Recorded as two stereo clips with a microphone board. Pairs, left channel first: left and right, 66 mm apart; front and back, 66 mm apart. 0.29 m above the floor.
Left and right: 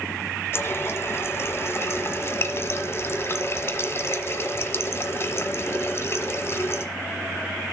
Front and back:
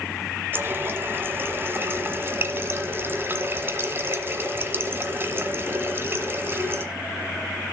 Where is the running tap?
130° left, 1.3 m.